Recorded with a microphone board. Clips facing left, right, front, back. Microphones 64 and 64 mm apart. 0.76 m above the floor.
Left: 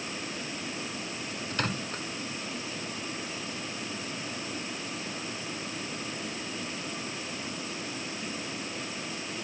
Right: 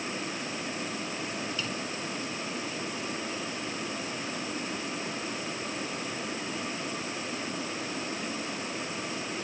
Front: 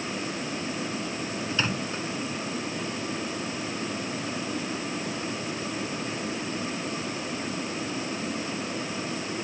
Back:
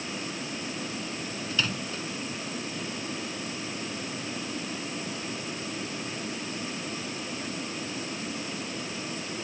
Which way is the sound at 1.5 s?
60° left.